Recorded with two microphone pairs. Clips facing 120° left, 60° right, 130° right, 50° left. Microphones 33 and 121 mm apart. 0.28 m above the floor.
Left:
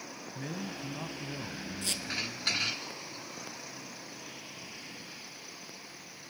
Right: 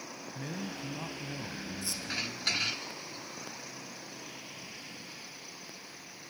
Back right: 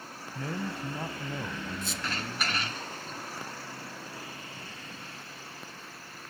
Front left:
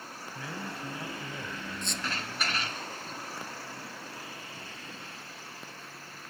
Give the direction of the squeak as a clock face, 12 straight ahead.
7 o'clock.